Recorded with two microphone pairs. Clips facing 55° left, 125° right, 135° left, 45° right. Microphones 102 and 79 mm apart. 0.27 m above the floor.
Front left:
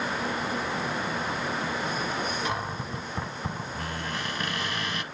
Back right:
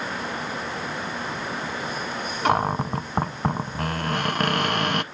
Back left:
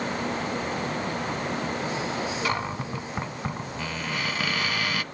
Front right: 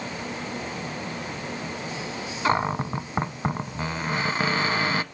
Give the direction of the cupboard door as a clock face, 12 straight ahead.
3 o'clock.